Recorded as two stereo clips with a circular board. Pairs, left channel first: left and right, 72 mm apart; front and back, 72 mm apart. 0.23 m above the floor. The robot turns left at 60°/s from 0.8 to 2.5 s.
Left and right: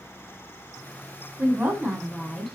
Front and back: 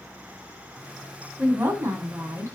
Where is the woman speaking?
120° right, 1.5 m; by 2.5 s 170° left, 1.5 m.